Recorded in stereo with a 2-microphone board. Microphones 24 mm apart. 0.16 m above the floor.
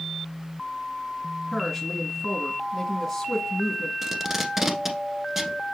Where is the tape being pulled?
15° right (ahead or behind), 1.1 m.